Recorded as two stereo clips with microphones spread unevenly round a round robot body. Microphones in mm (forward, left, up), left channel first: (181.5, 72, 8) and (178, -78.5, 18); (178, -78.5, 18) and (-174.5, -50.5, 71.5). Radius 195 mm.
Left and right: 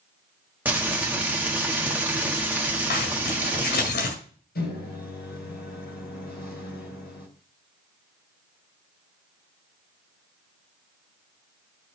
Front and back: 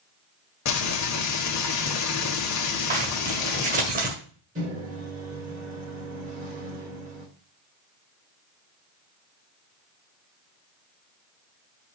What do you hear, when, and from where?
0.7 s frying: 10° right, 1.6 m
2.9 s a zipper: 105° left, 1.8 m
4.5 s a microwave: 100° left, 3.5 m